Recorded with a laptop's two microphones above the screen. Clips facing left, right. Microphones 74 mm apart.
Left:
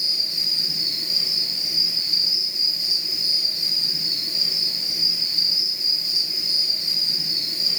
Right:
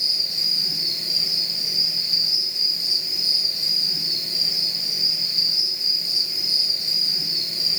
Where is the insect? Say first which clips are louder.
Even; 20° left (ahead or behind), 3.5 m.